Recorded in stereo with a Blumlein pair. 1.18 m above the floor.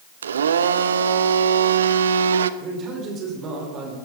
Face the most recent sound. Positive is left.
turn(degrees=-30)